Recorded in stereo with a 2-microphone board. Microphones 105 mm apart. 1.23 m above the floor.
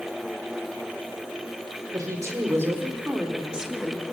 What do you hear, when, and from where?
1.9 s a woman speaking: 30° right (ahead or behind), 4 m; by 4.0 s 5° left (ahead or behind), 3 m